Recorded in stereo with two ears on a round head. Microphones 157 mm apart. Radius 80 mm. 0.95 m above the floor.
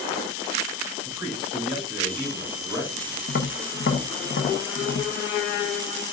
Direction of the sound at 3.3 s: 60° left (ahead or behind).